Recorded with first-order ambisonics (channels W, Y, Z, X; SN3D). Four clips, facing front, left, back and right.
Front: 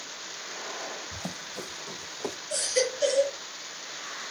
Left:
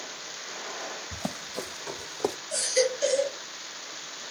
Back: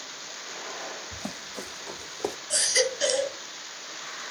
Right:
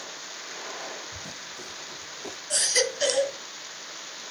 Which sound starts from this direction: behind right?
A baby crying, at 2.5 s.